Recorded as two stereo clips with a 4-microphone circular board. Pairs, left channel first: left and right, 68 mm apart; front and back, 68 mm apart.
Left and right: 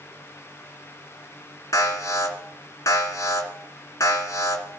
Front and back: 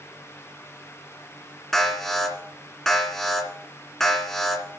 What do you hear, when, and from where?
1.7 s an alarm: 80° left, 2.5 m